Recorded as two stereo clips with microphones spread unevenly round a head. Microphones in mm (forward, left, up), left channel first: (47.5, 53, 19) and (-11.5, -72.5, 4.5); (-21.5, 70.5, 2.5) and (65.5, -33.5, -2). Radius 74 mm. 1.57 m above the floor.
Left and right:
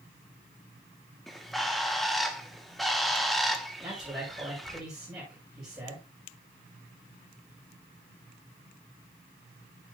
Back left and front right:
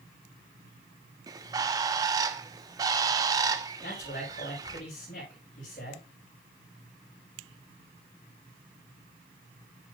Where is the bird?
15° right, 1.1 m.